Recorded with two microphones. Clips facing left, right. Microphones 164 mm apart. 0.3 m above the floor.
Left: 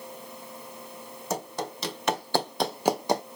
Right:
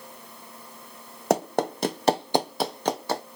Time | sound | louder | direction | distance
1.3 | running footsteps | right 9 dB | 70° right (ahead or behind) | 0.8 m